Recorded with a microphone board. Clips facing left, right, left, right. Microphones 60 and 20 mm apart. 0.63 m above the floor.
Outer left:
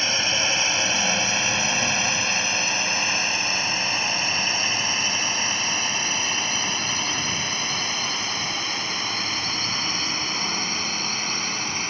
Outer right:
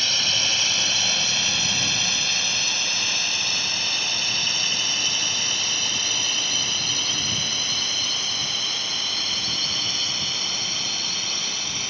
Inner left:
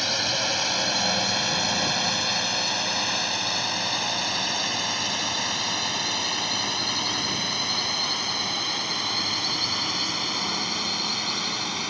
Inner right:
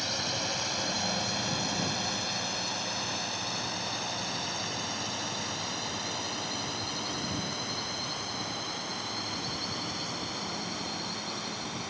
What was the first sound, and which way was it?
A drone, 30° left (ahead or behind).